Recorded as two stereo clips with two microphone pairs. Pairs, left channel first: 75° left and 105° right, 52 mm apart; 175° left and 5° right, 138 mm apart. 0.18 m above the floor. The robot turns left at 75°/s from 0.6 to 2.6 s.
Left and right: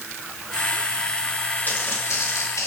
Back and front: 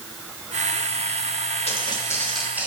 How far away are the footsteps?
About 4 m.